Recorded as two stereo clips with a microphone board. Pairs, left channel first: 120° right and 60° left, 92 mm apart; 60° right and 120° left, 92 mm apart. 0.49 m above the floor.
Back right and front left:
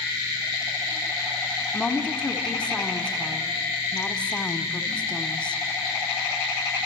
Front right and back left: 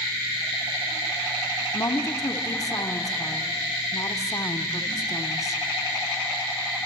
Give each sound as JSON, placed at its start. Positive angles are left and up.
{"t": 1.7, "sound": "a woman speaking", "azimuth_deg": -50, "distance_m": 1.1}